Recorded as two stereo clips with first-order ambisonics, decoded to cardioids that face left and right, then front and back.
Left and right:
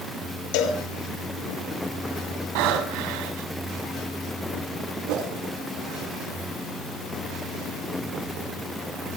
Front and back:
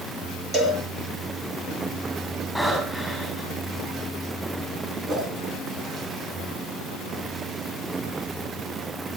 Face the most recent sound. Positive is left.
turn(degrees=-115)